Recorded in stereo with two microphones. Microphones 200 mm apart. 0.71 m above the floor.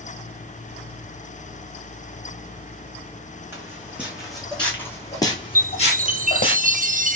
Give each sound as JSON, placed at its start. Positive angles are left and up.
{"t": 3.5, "sound": "footsteps", "side_deg": -15, "distance_m": 2.0}
{"t": 5.5, "sound": "a chime", "side_deg": -40, "distance_m": 0.5}